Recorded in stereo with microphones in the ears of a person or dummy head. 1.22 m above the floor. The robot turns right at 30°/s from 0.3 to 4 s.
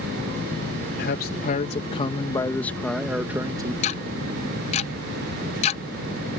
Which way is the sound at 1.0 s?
115° left.